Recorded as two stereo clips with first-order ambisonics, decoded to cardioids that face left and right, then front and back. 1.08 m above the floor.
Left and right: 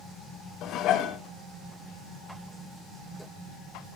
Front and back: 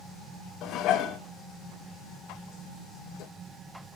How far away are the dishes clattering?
About 0.8 m.